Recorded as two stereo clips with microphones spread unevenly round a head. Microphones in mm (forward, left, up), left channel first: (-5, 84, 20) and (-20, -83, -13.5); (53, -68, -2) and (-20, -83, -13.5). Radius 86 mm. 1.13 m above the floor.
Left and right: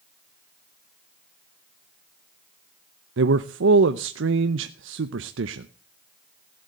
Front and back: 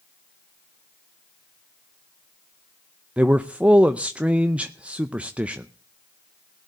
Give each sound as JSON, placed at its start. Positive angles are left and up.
{"t": 3.2, "sound": "a man speaking", "azimuth_deg": -95, "distance_m": 0.7}